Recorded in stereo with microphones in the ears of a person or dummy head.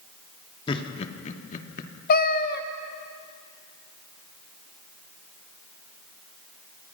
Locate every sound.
0.7 s laughter: 25° left (ahead or behind), 2.5 m; by 1.9 s 55° left (ahead or behind), 2.5 m
2.1 s a cat meowing: 55° left (ahead or behind), 1.1 m